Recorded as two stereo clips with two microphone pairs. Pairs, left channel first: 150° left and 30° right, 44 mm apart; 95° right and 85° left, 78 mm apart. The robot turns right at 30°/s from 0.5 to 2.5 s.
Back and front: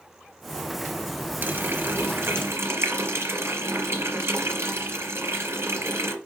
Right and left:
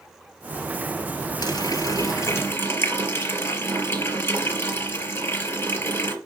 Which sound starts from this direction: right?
A running tap, at 1.4 s.